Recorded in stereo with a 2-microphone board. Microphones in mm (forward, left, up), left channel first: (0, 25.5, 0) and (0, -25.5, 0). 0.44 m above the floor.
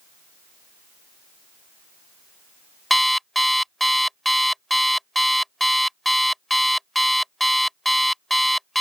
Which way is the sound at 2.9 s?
Centre (ahead or behind).